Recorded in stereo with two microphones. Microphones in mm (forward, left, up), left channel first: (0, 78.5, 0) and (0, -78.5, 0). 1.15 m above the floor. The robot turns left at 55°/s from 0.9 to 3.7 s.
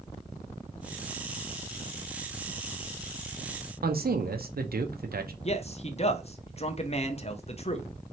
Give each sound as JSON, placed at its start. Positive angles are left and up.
{"t": 3.8, "sound": "a man speaking", "side_deg": -75, "distance_m": 0.7}
{"t": 5.4, "sound": "a man speaking", "side_deg": 40, "distance_m": 0.7}